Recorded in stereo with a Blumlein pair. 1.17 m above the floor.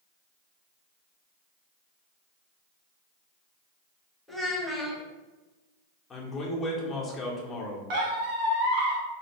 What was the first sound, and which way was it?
A child speaking, straight ahead.